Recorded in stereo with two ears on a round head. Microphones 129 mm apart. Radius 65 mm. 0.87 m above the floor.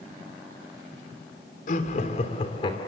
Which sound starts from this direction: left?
Laughter, at 1.7 s.